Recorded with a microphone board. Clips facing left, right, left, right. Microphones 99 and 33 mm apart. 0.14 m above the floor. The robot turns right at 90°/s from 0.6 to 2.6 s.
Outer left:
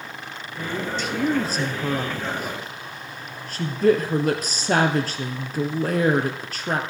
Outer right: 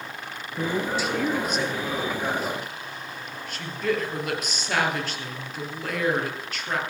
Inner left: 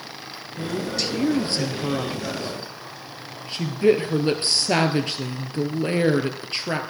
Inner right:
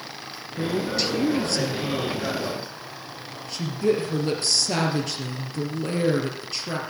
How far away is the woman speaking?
About 2.5 m.